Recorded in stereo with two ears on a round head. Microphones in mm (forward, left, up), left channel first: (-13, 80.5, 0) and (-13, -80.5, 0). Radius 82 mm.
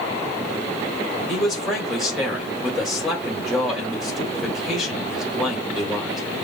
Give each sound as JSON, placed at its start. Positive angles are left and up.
{"t": 1.3, "sound": "a man speaking", "side_deg": 0, "distance_m": 1.8}